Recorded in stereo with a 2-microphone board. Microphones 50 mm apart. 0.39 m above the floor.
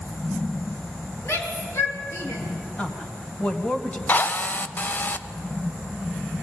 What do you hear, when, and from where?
1.2 s a shout: 55° left (ahead or behind), 6 m; by 2.4 s 60° left (ahead or behind), 6.5 m
2.8 s a woman speaking: 20° left (ahead or behind), 2 m
4.1 s a drill: 35° left (ahead or behind), 0.8 m